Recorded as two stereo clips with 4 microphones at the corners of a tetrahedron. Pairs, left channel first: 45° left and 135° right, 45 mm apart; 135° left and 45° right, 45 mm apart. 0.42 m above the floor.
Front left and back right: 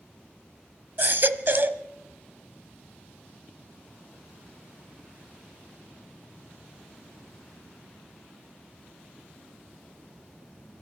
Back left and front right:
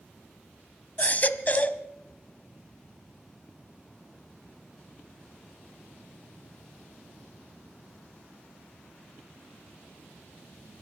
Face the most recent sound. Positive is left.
turn(degrees=-175)